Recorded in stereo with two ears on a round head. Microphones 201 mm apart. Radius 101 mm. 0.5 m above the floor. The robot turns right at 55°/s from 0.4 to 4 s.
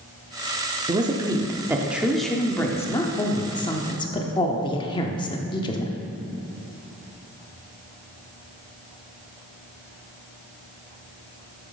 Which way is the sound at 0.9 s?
20° right (ahead or behind).